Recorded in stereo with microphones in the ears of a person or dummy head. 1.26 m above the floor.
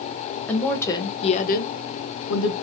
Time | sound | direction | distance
0.5 | a woman speaking | 10° left (ahead or behind) | 1.7 m